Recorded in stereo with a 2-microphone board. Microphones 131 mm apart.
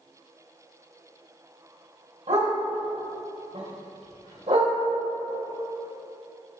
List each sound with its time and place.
2.3 s a dog barking: 60° right (ahead or behind), 2.5 m